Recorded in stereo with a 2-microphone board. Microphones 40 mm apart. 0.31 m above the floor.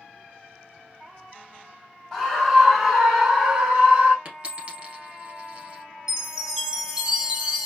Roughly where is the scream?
Centre.